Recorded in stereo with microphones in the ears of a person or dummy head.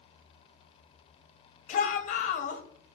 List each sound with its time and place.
1.7 s a shout: 40° left (ahead or behind), 2.5 m